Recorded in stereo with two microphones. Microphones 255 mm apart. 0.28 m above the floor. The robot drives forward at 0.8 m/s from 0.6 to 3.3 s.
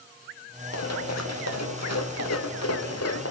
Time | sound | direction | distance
0.7 | running footsteps | 80° left | 3.5 m